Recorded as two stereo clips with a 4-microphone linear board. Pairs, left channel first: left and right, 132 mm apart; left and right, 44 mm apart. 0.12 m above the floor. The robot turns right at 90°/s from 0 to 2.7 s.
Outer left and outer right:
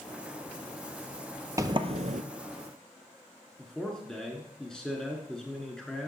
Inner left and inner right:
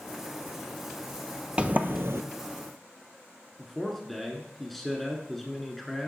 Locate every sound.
1.6 s a sliding door: 155° right, 0.5 m; by 2.2 s 100° right, 0.5 m
3.6 s a man speaking: 5° left (ahead or behind), 1.1 m